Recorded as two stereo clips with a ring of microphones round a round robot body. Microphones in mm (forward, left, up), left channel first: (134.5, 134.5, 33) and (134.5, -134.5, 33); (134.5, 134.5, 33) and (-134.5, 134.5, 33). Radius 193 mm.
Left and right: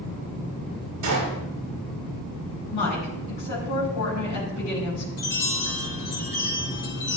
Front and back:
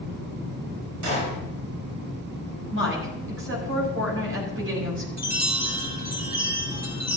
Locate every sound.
1.0 s a gunshot: 135° right, 5.5 m
2.7 s a woman speaking: 140° left, 7 m
5.2 s a chime: 125° left, 5 m